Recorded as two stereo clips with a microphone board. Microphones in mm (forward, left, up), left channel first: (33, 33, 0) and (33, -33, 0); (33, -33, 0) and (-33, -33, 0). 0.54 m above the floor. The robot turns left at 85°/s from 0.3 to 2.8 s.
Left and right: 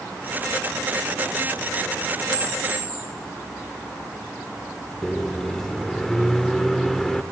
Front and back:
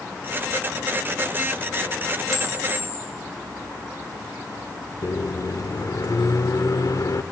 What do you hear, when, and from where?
2.3 s a camera shutter: 85° right, 4.5 m; by 3.0 s 125° right, 4.5 m
5.0 s a microwave: 5° left, 1.1 m